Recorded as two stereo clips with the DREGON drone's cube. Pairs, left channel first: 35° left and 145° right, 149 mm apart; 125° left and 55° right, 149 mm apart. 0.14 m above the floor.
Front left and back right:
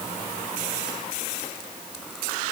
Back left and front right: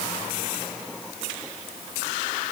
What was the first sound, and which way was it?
Only background noise.